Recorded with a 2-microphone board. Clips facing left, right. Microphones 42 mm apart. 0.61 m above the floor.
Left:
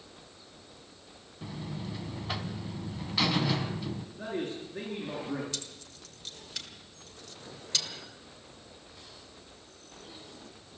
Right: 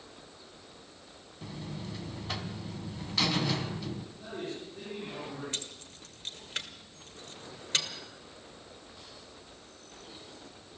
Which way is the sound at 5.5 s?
40° right (ahead or behind).